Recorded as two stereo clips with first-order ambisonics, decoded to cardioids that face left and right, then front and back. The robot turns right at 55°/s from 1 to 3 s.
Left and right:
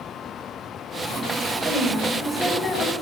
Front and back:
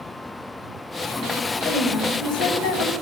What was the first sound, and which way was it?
A woman speaking, 35° right.